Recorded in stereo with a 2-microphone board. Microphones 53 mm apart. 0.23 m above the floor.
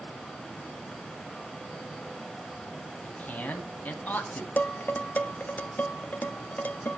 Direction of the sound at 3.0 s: 30° left (ahead or behind).